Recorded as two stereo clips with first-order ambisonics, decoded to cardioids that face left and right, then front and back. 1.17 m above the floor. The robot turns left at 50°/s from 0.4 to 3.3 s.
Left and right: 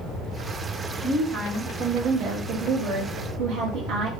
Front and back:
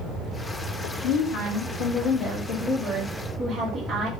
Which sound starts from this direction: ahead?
A woman speaking, at 1.0 s.